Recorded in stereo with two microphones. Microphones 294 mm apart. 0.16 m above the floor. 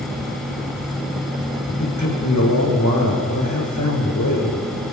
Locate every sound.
1.8 s a man speaking: 70° left (ahead or behind), 6.5 m